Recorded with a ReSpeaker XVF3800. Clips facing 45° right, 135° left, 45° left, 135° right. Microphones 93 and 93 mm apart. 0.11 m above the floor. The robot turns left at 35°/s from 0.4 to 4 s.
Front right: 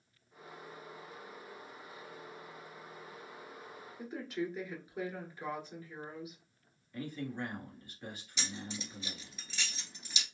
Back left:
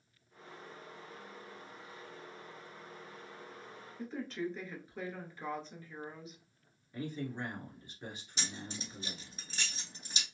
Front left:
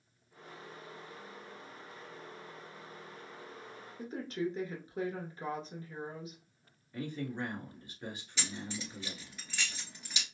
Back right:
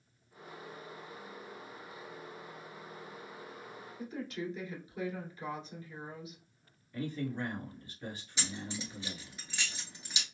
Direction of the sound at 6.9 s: 90° left.